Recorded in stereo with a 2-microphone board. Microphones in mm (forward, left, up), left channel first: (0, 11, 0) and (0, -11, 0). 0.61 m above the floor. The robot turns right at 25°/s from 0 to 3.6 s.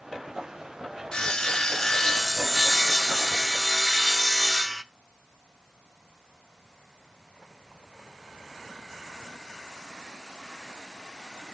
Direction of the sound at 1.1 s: 140° left.